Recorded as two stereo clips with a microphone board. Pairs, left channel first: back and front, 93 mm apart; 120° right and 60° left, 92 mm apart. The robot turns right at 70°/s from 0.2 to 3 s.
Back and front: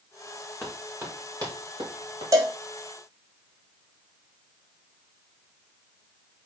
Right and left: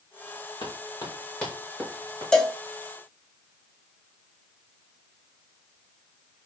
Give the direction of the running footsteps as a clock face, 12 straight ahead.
3 o'clock.